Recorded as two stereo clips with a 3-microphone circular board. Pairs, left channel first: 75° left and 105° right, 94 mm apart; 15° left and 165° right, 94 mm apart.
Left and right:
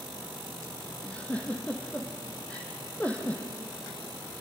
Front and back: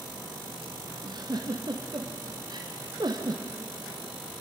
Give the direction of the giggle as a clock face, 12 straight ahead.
7 o'clock.